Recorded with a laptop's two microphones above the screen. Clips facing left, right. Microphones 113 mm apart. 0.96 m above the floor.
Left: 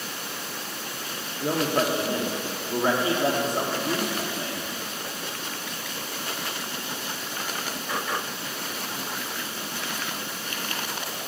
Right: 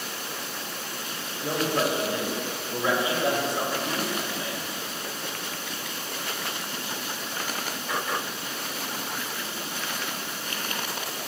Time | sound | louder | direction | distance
1.4 | a man speaking | left 2 dB | 40° left (ahead or behind) | 1.7 m